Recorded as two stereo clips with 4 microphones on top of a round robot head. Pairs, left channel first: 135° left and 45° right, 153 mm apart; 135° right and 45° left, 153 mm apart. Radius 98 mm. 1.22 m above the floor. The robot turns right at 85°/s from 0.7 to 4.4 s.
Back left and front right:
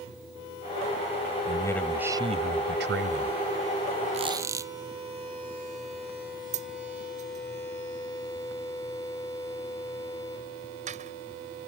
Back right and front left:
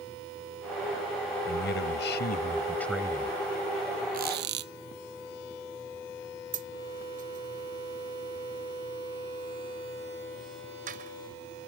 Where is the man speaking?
170° right; by 3.4 s 5° right.